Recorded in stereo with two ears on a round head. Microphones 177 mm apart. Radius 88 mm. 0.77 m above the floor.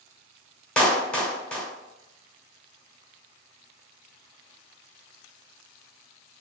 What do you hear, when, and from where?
0.8 s a clap: 5° left (ahead or behind), 0.7 m